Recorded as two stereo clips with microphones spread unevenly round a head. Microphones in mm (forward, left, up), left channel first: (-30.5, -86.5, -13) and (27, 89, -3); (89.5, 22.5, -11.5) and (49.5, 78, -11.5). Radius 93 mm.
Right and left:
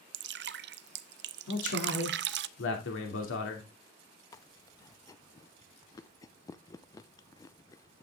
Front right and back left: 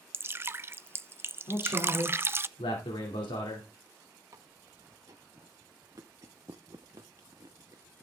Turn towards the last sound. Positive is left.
turn(degrees=180)